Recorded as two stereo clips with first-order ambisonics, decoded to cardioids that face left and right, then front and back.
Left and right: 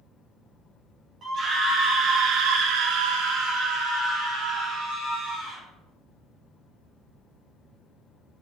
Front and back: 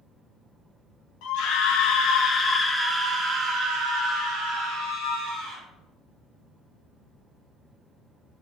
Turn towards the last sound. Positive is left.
turn(degrees=-155)